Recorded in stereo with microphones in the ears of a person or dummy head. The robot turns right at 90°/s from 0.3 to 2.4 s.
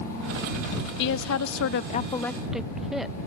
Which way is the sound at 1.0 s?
55° left.